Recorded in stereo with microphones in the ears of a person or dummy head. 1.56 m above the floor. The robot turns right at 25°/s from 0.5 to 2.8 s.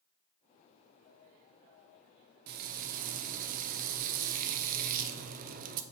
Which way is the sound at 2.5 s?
55° right (ahead or behind).